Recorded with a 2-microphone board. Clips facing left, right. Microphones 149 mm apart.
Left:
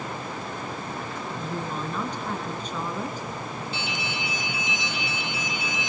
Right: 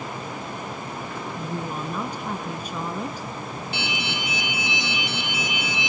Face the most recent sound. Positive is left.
turn(degrees=-70)  # may be behind; listen again after turning